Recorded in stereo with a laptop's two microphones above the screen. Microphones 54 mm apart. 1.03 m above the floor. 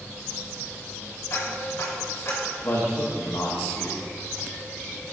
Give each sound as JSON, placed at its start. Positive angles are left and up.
{"t": 1.3, "sound": "ticking", "side_deg": 55, "distance_m": 2.0}
{"t": 2.6, "sound": "a man speaking", "side_deg": 60, "distance_m": 1.3}